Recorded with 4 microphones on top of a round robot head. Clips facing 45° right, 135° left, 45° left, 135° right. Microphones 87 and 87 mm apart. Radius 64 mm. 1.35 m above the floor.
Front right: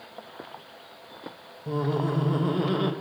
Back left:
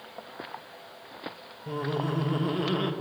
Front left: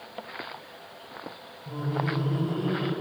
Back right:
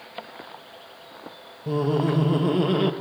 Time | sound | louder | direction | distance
1.7 | laughter | front right 3 dB, back right 8 dB | 120° right | 2.0 m